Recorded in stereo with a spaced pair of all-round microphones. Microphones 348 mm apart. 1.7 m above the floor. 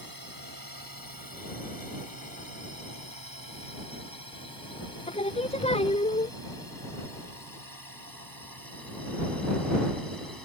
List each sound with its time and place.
0.0 s a drone: 75° right (ahead or behind); by 10.5 s 80° right
5.1 s singing: 15° left (ahead or behind)